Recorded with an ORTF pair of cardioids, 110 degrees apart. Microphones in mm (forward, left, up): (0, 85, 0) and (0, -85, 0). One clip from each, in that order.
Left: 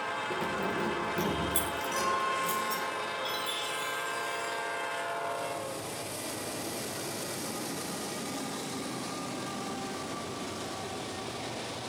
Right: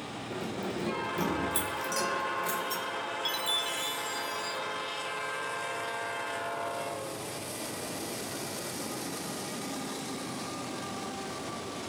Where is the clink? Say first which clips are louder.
Left 2 dB; 45° right, 4 m.